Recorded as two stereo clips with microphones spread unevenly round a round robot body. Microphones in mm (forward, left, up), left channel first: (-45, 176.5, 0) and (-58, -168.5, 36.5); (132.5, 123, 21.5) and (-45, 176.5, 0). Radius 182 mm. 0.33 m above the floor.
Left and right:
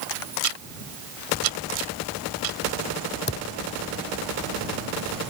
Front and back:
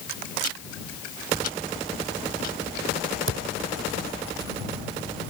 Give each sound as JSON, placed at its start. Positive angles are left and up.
{"t": 0.4, "sound": "ticking", "azimuth_deg": -70}
{"t": 3.3, "sound": "a thud", "azimuth_deg": 150}